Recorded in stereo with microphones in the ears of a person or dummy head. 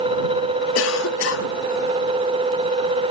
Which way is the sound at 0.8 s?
70° left (ahead or behind).